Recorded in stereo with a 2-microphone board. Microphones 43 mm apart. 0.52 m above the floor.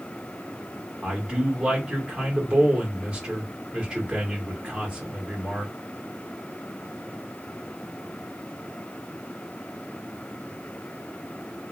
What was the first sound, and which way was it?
A man speaking, 20° right (ahead or behind).